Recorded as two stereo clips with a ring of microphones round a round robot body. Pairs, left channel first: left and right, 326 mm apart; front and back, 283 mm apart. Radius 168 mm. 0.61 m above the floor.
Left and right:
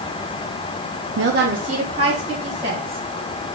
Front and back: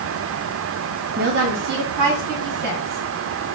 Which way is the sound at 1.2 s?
130° right.